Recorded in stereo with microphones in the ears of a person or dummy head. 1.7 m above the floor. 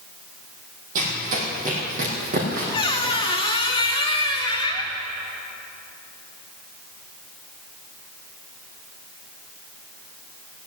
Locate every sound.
0.9 s running footsteps: 45° right (ahead or behind), 3 m; by 3.2 s 50° right (ahead or behind), 5 m
2.7 s a squeak: 20° left (ahead or behind), 1.0 m